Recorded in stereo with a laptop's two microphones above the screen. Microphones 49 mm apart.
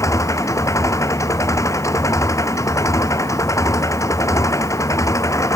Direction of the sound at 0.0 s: 85° left.